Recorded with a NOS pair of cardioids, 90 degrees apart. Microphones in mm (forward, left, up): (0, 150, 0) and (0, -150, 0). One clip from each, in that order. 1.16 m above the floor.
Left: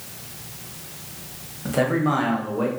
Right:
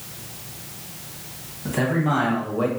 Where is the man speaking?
15° left, 1.2 m; by 2.7 s 10° right, 0.7 m.